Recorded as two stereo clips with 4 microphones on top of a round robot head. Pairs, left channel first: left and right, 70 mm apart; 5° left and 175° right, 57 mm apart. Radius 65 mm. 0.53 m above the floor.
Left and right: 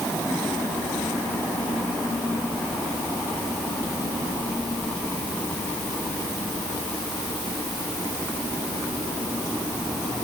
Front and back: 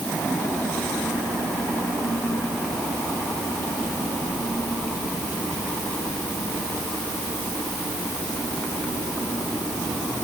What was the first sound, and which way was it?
Only background noise.